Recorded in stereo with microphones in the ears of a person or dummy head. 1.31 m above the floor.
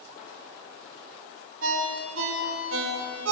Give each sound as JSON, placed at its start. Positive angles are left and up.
{"t": 1.6, "sound": "a ringtone", "side_deg": -85, "distance_m": 3.5}